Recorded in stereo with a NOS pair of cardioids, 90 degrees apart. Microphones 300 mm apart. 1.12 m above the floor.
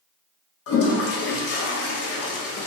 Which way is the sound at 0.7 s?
50° left.